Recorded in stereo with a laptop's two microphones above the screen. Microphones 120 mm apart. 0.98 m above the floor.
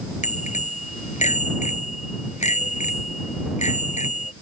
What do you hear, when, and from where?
0.2 s a bicycle bell: 75° left (ahead or behind)